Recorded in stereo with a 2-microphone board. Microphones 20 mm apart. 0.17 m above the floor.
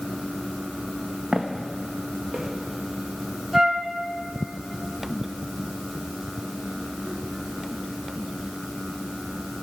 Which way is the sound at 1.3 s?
60° right (ahead or behind).